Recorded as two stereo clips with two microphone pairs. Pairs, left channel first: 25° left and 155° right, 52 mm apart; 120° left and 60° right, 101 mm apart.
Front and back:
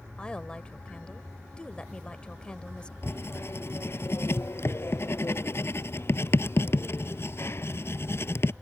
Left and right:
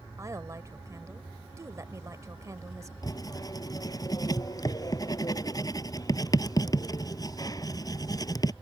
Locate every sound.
0.2 s a woman speaking: 30° right
3.0 s writing: 65° left